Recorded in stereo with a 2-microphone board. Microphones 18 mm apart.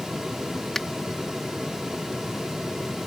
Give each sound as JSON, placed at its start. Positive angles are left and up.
{"t": 0.8, "sound": "a finger snap", "side_deg": 20}